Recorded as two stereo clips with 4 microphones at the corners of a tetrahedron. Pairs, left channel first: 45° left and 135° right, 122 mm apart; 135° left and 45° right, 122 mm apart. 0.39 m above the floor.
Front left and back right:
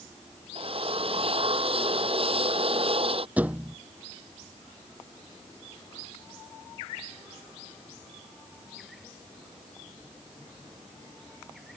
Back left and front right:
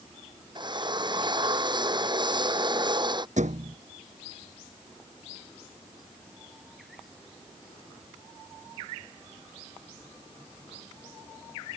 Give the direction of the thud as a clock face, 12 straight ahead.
2 o'clock.